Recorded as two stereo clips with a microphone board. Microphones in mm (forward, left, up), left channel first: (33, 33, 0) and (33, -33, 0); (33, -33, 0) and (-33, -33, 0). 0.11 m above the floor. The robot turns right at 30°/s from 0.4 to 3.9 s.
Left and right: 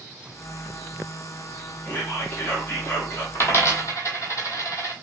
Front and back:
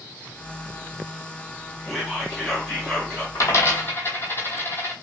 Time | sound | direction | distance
1.9 | whispering | 85° left | 1.4 m
3.4 | a dropped coin | 35° left | 0.7 m